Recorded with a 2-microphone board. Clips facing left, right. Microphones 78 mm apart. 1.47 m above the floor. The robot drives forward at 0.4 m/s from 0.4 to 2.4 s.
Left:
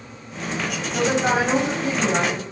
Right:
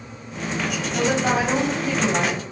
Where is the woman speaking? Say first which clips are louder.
Left 1 dB; 30° left (ahead or behind), 10 m.